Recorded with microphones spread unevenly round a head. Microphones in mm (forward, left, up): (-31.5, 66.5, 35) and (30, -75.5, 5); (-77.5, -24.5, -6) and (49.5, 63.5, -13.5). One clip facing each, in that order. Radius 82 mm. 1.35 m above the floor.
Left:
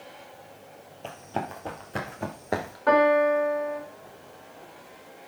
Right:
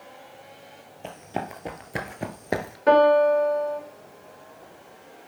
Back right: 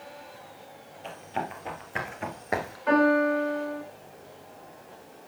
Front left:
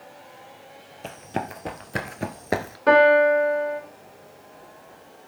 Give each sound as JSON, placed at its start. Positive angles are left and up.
{"t": 1.0, "sound": "running footsteps", "azimuth_deg": 15, "distance_m": 2.0}
{"t": 2.9, "sound": "a piano", "azimuth_deg": 0, "distance_m": 3.0}